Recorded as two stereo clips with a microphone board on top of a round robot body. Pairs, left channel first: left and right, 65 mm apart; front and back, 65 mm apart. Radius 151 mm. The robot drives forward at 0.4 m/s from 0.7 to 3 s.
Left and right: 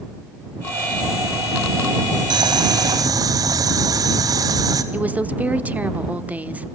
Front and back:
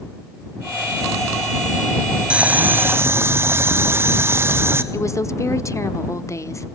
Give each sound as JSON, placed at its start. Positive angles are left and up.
{"t": 2.3, "sound": "boiling", "azimuth_deg": -105, "distance_m": 0.7}
{"t": 4.9, "sound": "a woman speaking", "azimuth_deg": -30, "distance_m": 1.3}